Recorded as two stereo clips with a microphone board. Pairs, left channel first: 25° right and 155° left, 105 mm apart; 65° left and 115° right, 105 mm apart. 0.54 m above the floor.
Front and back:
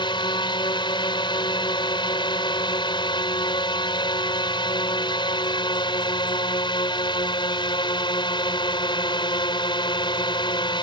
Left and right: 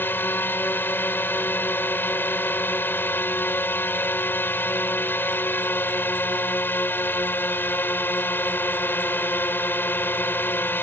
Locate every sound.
0.0 s a drone: straight ahead